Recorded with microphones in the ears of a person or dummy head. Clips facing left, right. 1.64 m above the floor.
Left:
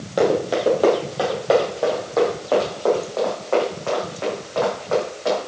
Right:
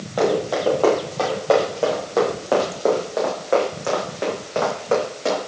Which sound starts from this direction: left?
Running footsteps, at 0.2 s.